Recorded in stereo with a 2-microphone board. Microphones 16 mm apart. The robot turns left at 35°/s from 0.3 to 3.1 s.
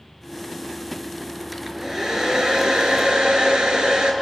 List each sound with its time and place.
1.5 s a hair dryer: 15° right, 4 m; by 4.1 s 70° right, 4 m